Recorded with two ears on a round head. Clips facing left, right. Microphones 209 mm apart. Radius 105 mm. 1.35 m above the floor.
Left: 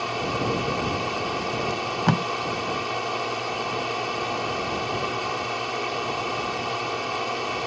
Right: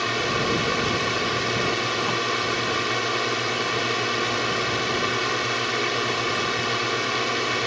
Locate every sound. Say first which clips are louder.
0.0 s a drone: right 1 dB; 25° right (ahead or behind)
1.7 s tape being pulled: left 1 dB; 70° left (ahead or behind)